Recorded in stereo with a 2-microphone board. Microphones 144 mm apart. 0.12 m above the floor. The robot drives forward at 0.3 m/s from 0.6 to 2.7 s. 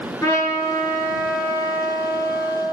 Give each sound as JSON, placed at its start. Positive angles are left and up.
{"t": 0.2, "sound": "a trumpet", "side_deg": 25, "distance_m": 0.8}